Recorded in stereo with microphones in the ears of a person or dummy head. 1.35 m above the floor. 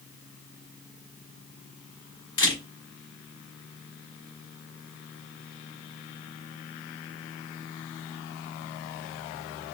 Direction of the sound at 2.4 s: 30° left (ahead or behind).